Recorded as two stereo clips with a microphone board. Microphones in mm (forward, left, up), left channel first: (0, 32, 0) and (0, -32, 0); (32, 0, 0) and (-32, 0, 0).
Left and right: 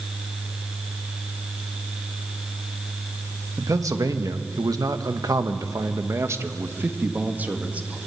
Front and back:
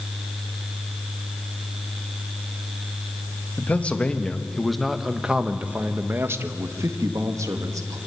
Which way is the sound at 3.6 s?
65° right.